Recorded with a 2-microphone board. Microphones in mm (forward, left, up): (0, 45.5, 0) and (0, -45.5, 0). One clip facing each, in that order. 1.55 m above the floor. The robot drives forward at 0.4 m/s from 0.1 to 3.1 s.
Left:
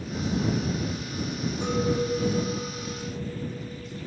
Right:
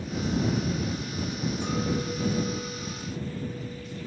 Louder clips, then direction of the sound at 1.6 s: Left 5 dB; 50° left (ahead or behind).